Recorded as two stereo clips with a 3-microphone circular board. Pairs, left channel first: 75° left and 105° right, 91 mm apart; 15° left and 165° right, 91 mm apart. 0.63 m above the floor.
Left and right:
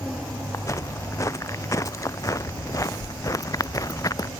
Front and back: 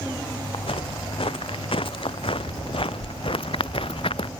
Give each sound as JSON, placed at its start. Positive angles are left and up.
{"t": 0.5, "sound": "footsteps", "azimuth_deg": 20}